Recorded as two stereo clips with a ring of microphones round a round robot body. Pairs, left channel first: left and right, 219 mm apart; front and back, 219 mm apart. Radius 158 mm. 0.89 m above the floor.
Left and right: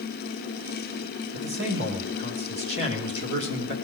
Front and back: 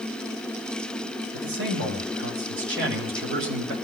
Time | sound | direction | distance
1.3 | a man speaking | 140° right | 2 m